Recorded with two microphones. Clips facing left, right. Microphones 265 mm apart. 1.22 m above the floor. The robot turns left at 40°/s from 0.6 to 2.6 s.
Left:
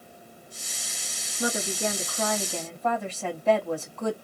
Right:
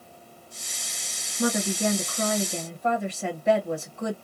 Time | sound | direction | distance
1.4 | a woman speaking | 115° right | 1.4 m